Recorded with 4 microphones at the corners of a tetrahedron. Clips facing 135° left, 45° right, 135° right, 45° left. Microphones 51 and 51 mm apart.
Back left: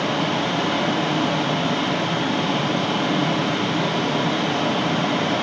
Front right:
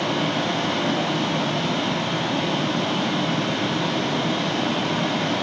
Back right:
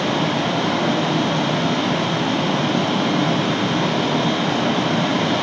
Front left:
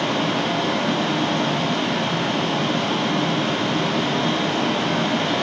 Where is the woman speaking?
I don't hear a woman speaking.